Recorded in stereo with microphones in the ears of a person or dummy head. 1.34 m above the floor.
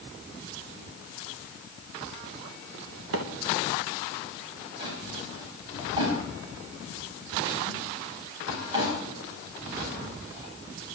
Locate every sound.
3.1 s a microwave: 75° right (ahead or behind), 1.2 m
4.8 s a drawer: 25° right (ahead or behind), 6 m